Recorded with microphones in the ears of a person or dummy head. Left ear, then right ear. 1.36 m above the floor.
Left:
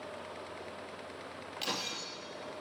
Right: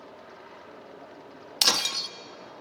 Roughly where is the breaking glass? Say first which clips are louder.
Right 13 dB; right.